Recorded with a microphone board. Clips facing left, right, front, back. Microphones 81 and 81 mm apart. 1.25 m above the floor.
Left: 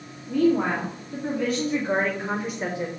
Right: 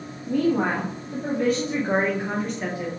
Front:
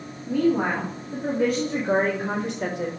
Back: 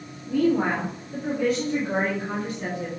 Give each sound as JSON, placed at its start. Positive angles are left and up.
{"t": 0.3, "sound": "a woman speaking", "azimuth_deg": -60, "distance_m": 2.5}